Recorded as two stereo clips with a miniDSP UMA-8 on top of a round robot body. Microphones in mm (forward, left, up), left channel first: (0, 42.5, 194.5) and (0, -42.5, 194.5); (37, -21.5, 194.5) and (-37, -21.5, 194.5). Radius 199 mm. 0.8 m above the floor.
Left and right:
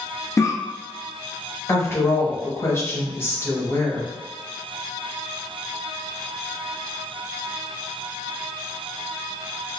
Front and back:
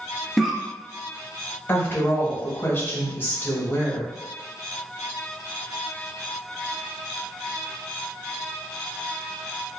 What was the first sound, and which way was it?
A cough, 95° left.